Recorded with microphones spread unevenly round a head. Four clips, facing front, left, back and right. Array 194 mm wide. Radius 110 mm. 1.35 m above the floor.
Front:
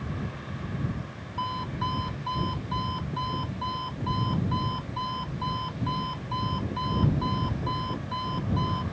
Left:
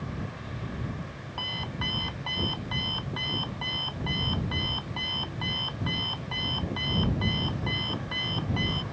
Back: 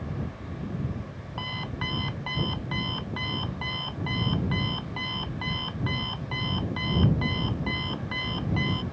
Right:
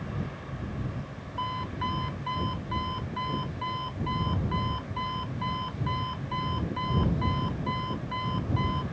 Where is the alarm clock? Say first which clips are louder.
Right 5 dB, front 5 dB; 160° left.